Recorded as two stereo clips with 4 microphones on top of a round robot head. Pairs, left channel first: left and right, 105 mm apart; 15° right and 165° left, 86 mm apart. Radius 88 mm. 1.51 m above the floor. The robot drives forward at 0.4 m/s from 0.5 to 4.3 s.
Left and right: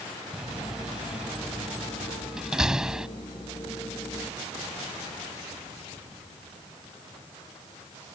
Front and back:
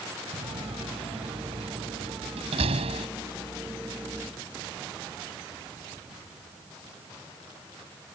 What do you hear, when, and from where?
0.3 s a door slam: 175° right